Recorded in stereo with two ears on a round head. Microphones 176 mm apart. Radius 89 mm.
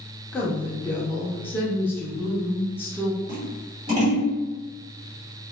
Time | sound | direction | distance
0.3 | a woman speaking | 10° left (ahead or behind) | 0.6 m
3.3 | scissors | 25° right (ahead or behind) | 1.4 m